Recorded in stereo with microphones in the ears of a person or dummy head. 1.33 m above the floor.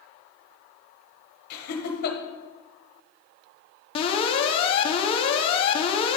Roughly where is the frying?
No frying in this recording.